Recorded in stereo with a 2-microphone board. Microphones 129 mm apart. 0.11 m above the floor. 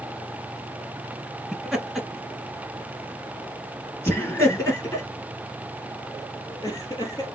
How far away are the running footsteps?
No running footsteps in this recording.